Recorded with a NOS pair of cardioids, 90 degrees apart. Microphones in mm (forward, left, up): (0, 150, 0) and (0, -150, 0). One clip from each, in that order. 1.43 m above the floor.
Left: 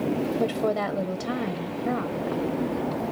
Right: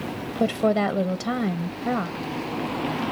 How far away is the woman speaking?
About 0.6 m.